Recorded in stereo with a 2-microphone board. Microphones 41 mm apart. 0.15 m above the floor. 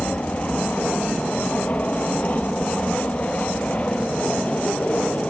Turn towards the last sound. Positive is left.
turn(degrees=35)  # may be behind; listen again after turning